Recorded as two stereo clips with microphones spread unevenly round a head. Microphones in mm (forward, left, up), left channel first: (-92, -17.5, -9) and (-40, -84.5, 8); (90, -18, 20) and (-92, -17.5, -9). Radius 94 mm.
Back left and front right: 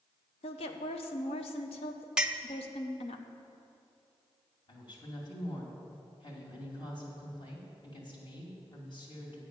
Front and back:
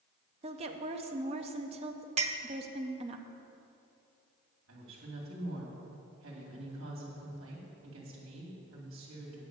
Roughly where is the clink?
Behind right.